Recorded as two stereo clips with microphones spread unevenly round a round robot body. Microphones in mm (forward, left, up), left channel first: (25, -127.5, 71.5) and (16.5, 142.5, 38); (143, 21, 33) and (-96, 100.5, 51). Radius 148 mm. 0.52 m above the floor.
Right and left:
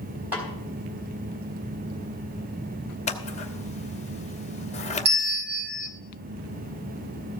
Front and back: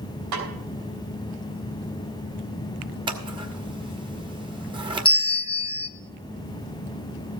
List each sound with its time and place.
0.3 s a snare drum: 175° left, 4 m
3.1 s scissors: 140° right, 1.3 m
5.0 s a bell: 50° left, 1.2 m